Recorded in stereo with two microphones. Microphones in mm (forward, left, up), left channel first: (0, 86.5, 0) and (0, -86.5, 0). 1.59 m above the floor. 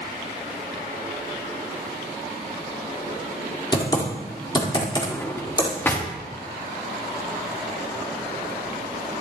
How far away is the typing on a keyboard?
About 1.7 m.